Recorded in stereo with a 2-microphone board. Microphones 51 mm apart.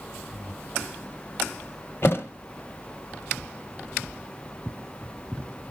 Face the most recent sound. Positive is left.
turn(degrees=50)  # may be behind; listen again after turning